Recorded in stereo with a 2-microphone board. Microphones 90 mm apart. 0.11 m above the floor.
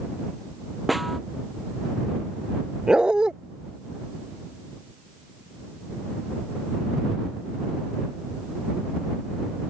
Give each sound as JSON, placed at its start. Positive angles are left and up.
{"t": 0.9, "sound": "a snare drum", "side_deg": 0}
{"t": 2.9, "sound": "a dog barking", "side_deg": -10}